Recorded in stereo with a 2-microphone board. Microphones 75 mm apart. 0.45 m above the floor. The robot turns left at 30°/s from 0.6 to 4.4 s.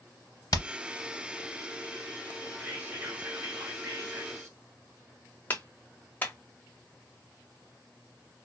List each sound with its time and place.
0.5 s hammering: 55° left (ahead or behind), 0.6 m; by 0.7 s 60° left (ahead or behind), 0.6 m
2.6 s whispering: 25° right, 1.5 m; by 4.6 s 80° right, 1.5 m
5.5 s a clap: 25° left (ahead or behind), 0.9 m